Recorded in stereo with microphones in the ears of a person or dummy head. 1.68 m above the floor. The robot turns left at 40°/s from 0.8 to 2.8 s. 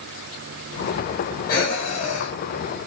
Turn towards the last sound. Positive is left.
turn(degrees=80)